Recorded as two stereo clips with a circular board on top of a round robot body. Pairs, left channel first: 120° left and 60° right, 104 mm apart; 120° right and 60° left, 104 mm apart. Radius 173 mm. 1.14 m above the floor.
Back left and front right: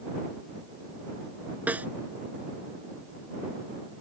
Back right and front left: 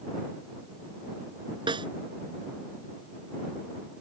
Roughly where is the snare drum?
Ahead.